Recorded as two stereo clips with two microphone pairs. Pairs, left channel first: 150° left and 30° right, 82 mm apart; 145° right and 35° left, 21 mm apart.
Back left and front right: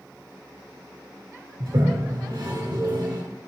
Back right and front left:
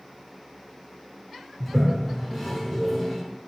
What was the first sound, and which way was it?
A toilet flushing, 55° right.